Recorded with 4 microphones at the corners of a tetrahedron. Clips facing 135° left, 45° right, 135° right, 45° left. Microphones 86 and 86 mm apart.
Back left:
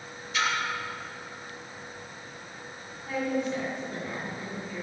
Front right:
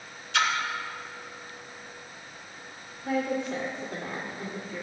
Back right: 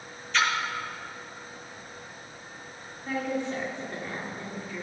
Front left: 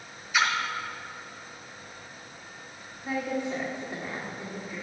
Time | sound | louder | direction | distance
0.3 | a splash | front right 2 dB, even | 35° right | 1.1 m
3.0 | a woman speaking | front right 1 dB, even | 30° right | 1.5 m